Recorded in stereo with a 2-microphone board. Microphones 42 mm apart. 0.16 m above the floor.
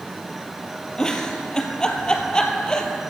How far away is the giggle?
About 1.0 m.